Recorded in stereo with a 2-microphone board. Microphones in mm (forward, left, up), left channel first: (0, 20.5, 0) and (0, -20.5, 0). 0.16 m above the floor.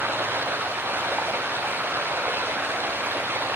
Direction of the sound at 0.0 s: 70° right (ahead or behind).